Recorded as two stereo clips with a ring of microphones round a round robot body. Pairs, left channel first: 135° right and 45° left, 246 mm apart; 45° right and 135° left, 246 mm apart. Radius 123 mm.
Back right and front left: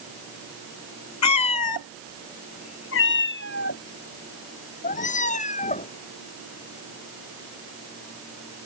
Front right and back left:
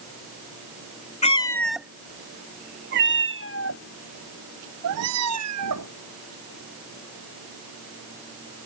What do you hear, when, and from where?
1.2 s a cat meowing: 110° right; by 5.9 s 160° left